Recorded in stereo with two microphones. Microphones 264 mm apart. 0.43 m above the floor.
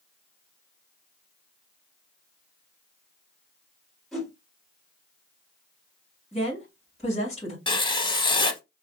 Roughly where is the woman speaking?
Left.